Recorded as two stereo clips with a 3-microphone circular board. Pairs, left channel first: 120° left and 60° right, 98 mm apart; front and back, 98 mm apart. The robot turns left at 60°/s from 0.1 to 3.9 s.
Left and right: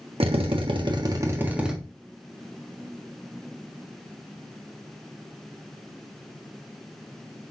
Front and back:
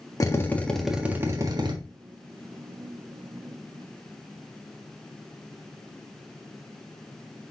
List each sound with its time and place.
0.2 s a drill: 55° right, 1.4 m; by 1.8 s 145° right, 1.4 m